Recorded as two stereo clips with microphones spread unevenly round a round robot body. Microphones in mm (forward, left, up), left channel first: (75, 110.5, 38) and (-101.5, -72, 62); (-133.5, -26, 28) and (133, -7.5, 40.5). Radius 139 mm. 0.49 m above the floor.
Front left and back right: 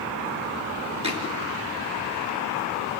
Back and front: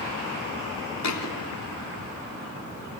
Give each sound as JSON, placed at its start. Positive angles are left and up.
{"t": 1.0, "sound": "a thud", "azimuth_deg": 160, "distance_m": 1.9}